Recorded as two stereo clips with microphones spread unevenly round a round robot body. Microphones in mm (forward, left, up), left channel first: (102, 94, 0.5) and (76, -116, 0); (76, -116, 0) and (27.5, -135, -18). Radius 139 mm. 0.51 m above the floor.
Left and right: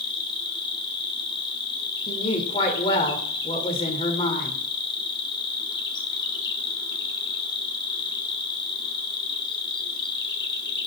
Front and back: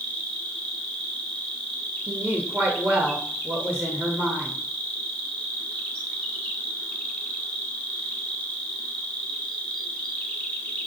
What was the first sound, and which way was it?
An insect, 115° left.